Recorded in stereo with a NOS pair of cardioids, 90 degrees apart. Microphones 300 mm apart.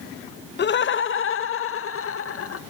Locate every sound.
0.6 s laughter: 35° left, 0.6 m; by 2.6 s 45° left, 1.7 m